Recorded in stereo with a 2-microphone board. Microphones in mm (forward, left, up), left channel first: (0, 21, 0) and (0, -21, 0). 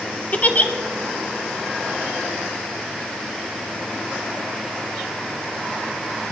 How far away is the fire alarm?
No fire alarm in this recording.